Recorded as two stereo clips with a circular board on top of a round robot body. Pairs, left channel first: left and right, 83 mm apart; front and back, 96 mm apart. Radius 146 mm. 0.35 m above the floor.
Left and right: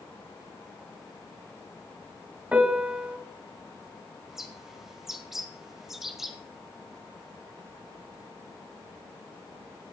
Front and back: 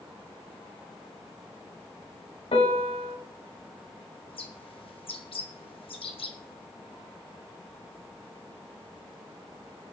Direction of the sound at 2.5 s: 15° right.